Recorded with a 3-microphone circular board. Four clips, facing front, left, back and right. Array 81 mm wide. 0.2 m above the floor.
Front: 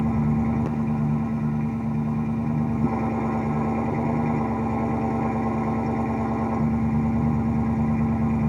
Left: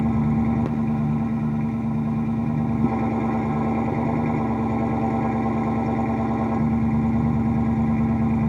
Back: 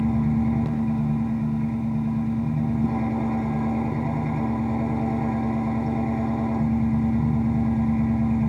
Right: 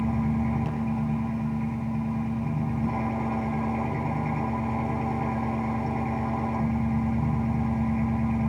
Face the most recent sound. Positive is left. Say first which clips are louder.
# left 5 dB, back 1 dB
turn(degrees=80)